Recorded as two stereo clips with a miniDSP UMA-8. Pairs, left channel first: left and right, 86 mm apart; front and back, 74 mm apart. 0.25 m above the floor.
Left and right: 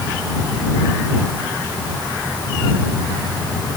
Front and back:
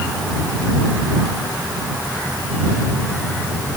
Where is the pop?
I don't hear a pop.